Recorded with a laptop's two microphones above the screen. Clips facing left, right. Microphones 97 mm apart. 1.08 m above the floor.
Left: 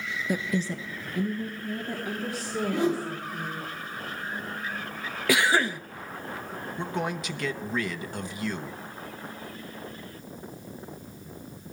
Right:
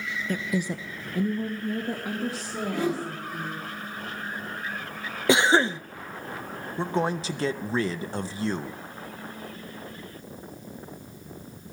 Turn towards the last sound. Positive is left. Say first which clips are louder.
# right 5 dB
turn(degrees=-30)  # may be behind; listen again after turning